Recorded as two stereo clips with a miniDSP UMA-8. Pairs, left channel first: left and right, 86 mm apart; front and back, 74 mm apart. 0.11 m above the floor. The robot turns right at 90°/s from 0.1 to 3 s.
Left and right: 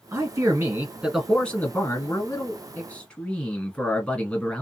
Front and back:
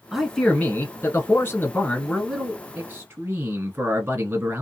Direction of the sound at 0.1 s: 105° right.